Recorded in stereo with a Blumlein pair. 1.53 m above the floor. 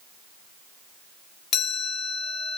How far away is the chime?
About 1.2 m.